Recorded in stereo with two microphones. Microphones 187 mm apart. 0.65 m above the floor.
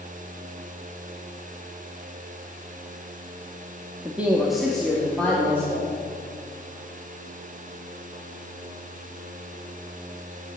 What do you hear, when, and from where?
4.0 s a man speaking: 10° right (ahead or behind), 1.0 m; by 5.9 s 10° left (ahead or behind), 2.5 m